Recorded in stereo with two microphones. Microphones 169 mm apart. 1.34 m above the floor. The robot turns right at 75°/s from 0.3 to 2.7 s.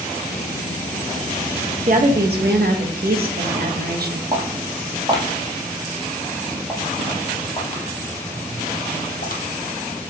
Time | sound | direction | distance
1.9 | a woman speaking | 135° right | 1.3 m
4.3 | footsteps | 35° right (ahead or behind) | 3 m